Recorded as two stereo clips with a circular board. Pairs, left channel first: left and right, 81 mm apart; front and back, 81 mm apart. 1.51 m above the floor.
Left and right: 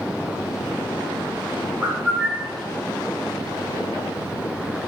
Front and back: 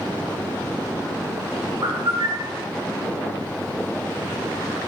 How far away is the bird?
About 4.5 m.